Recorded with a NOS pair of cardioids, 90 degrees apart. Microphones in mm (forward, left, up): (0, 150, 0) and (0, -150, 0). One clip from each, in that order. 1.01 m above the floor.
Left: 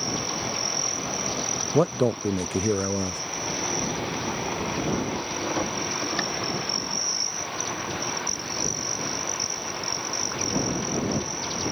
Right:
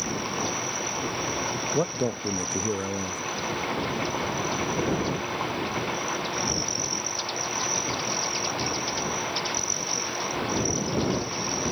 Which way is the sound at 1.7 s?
25° left.